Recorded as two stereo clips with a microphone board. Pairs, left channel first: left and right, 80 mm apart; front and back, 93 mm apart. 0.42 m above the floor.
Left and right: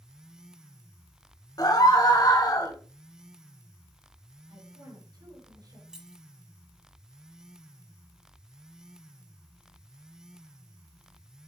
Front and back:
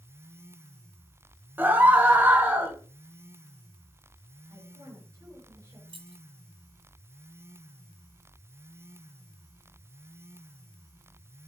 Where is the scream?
115° left, 2.5 m.